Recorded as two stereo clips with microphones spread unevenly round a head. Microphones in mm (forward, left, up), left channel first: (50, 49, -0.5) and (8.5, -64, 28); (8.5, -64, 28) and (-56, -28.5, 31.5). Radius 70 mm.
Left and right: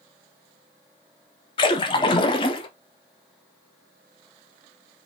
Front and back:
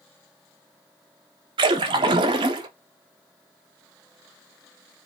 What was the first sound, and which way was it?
A splash, 125° left.